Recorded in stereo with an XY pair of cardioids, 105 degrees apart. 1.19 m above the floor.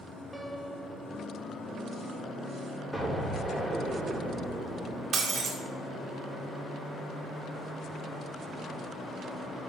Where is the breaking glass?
65° right, 1.7 m.